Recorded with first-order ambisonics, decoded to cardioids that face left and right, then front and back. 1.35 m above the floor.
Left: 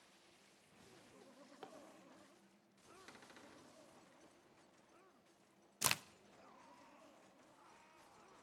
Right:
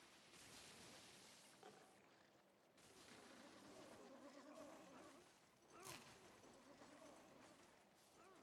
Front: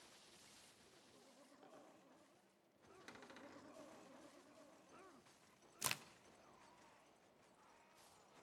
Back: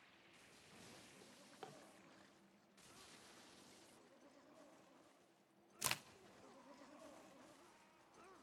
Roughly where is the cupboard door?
Ahead left.